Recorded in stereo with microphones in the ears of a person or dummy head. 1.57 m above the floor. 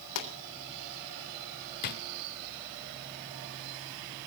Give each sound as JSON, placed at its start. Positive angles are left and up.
{"t": 0.1, "sound": "a pop", "side_deg": 70, "distance_m": 3.5}
{"t": 1.8, "sound": "a drawer", "side_deg": 45, "distance_m": 1.7}